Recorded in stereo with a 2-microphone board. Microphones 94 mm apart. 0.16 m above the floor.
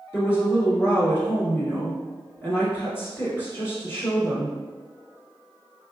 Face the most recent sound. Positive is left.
turn(degrees=25)  # may be behind; listen again after turning